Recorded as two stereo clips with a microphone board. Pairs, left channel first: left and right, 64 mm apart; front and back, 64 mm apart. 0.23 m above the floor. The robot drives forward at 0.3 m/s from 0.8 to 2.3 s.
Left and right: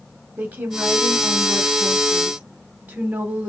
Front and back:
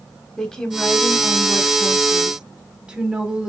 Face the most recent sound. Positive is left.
turn(degrees=-125)